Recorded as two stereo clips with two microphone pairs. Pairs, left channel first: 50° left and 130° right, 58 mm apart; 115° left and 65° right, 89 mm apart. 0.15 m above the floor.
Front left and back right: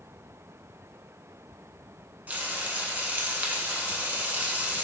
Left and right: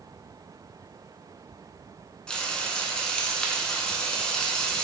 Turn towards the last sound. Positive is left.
turn(degrees=180)